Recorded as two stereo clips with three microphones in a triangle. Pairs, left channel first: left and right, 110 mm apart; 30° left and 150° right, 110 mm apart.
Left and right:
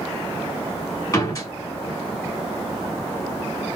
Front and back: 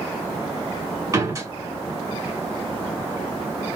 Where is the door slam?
150° left, 2 m.